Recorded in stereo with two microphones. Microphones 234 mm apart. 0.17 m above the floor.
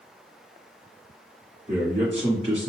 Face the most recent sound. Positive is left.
turn(degrees=-30)  # may be behind; listen again after turning